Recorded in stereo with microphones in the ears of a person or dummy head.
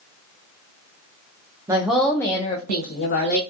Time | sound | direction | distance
1.7 | a woman speaking | 15° right (ahead or behind) | 0.6 m